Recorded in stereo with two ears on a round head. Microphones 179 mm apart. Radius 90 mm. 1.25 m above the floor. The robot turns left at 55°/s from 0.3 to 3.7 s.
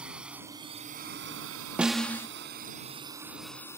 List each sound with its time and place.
0.0 s a drone: 5° right (ahead or behind); by 3.8 s 15° left (ahead or behind)
1.8 s a snare drum: 5° right (ahead or behind); by 2.3 s 15° left (ahead or behind)